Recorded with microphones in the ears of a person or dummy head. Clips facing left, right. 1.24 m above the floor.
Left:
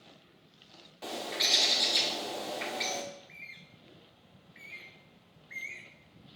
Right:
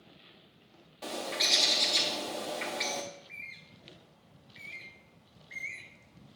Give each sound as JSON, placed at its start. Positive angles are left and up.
{"t": 1.0, "sound": "a bird", "side_deg": 0, "distance_m": 1.3}
{"t": 3.1, "sound": "a bird", "side_deg": 5, "distance_m": 0.7}